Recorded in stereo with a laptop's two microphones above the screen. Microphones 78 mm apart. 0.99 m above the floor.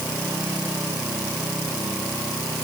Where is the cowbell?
I don't hear a cowbell.